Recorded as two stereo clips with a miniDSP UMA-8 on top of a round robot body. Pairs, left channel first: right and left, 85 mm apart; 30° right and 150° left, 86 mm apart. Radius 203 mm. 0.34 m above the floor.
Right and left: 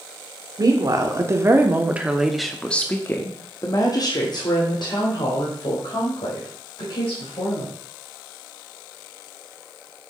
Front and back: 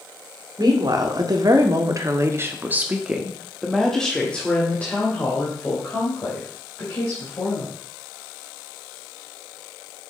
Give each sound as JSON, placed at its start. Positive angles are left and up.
{"t": 0.6, "sound": "a woman speaking", "azimuth_deg": 120, "distance_m": 2.0}